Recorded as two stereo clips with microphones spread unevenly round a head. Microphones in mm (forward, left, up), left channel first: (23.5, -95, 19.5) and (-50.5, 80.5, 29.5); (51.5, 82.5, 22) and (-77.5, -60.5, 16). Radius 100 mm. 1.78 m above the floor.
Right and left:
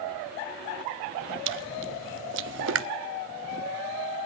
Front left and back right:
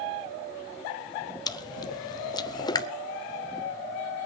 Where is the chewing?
115° left, 0.7 m.